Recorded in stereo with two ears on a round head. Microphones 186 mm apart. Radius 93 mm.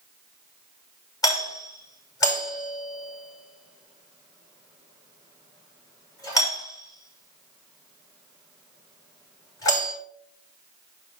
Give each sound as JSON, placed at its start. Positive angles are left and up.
{"t": 1.2, "sound": "a doorbell", "side_deg": 20, "distance_m": 6.5}